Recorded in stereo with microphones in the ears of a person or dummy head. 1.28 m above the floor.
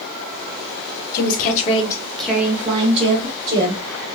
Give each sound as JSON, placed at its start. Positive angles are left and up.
{"t": 1.1, "sound": "a woman speaking", "side_deg": 55, "distance_m": 0.8}